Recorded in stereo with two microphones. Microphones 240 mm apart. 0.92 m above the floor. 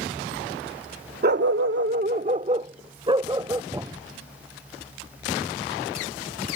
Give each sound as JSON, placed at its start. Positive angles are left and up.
{"t": 1.2, "sound": "a dog barking", "side_deg": -40}
{"t": 3.7, "sound": "a thud", "side_deg": -15}